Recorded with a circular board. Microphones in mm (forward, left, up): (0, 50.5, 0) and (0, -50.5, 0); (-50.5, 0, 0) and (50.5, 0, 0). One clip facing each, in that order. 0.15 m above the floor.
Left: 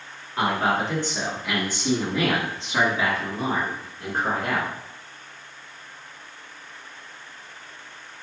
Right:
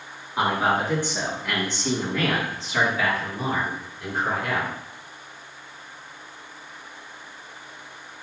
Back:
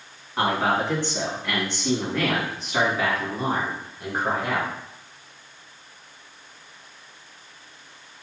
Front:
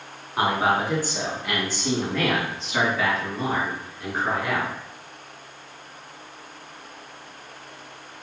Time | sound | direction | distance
0.4 | a man speaking | 50° right | 1.7 m